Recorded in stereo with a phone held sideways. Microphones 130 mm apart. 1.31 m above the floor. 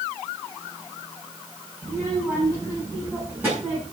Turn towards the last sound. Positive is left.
turn(degrees=-15)  # may be behind; listen again after turning